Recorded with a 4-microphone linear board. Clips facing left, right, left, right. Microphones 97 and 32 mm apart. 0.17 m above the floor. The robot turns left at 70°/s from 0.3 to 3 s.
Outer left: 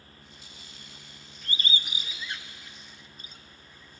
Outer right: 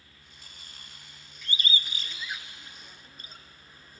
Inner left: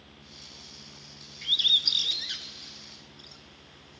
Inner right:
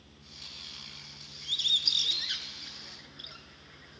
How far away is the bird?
About 1.4 m.